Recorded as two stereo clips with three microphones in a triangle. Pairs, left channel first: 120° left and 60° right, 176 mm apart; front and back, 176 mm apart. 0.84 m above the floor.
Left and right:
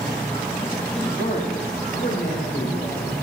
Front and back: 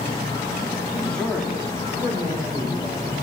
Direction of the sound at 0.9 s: 70° left.